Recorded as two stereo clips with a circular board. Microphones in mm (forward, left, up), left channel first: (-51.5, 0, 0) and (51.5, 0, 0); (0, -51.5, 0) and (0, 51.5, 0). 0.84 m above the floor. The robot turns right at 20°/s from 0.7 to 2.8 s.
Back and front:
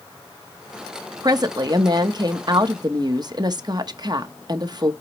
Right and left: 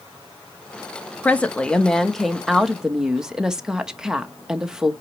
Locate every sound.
1.2 s a woman speaking: 20° right, 1.0 m; by 4.9 s 10° left, 1.0 m